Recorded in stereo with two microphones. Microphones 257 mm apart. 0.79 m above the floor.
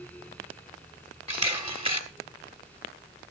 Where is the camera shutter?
20° right (ahead or behind), 1.5 m.